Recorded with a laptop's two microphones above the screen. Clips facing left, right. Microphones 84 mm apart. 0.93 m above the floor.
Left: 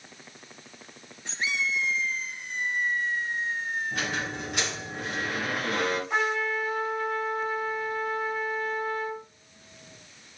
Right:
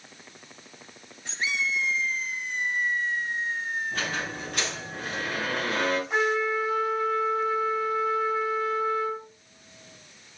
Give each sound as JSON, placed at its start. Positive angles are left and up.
{"t": 3.9, "sound": "a squeak", "side_deg": 15, "distance_m": 4.0}
{"t": 6.1, "sound": "a trumpet", "side_deg": -5, "distance_m": 2.5}